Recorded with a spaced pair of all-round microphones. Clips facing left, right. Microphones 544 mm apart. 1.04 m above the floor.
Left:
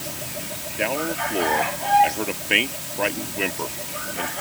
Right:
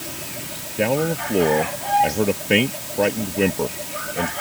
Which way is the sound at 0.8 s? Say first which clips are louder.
Right 6 dB; 60° right (ahead or behind).